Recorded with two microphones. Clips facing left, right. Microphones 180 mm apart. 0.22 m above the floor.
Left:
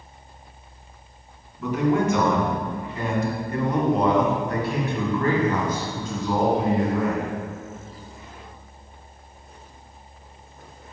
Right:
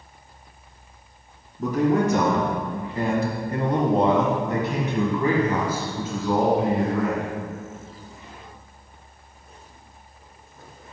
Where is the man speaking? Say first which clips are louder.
Right 1 dB; 45° right (ahead or behind), 2 m; by 7.3 s 5° left (ahead or behind), 2 m.